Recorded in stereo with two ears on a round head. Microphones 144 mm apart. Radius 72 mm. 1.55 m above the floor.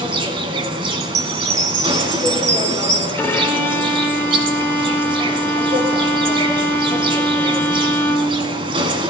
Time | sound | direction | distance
0.0 | an insect | 30° right (ahead or behind) | 1.7 m
1.0 | a chime | 45° right (ahead or behind) | 2 m
3.2 | a violin | 15° left (ahead or behind) | 1.6 m